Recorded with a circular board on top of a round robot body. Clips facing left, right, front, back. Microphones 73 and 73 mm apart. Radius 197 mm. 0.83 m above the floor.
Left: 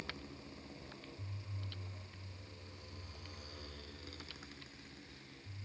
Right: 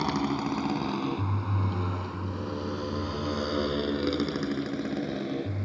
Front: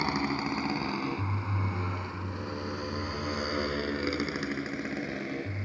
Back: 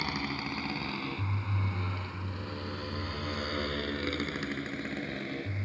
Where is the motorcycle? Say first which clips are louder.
Right 22 dB, front 5 dB; 70° right; by 5.7 s 80° right.